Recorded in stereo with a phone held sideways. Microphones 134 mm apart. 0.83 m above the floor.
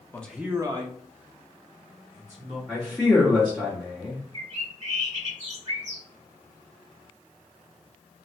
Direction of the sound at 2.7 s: 5° left (ahead or behind).